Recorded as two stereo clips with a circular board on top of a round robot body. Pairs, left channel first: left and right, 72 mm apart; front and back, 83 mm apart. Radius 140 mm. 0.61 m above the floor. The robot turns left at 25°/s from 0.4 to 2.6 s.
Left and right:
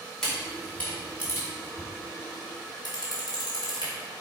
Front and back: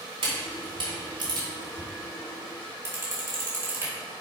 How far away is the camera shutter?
About 2.5 m.